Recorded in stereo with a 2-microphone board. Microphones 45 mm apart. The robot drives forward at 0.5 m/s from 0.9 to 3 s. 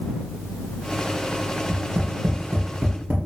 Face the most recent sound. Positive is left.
turn(degrees=-55)  # may be behind; listen again after turning